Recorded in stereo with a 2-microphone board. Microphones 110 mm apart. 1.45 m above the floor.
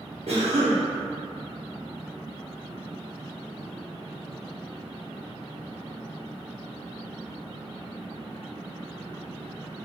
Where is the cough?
80° right, 1.0 m.